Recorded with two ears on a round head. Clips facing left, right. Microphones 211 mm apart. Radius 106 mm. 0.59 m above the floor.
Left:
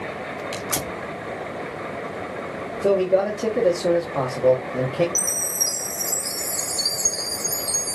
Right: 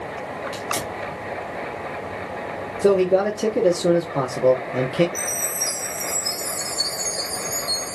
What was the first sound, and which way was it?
Tearing paper, 35° left (ahead or behind).